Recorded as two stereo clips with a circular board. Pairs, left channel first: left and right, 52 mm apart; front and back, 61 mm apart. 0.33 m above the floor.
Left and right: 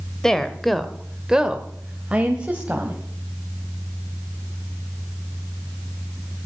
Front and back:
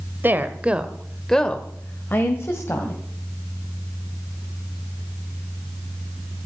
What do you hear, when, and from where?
0.2 s a woman speaking: 160° left, 1.3 m; by 3.0 s 30° right, 2.0 m